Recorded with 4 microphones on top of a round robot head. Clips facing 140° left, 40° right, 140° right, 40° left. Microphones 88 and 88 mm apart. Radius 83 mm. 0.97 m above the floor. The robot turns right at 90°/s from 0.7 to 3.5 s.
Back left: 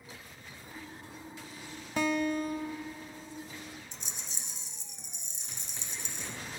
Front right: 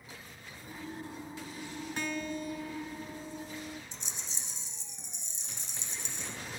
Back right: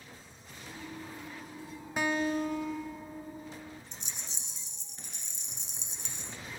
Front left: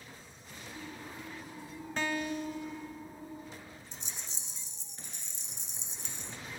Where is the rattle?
175° right, 1.0 m.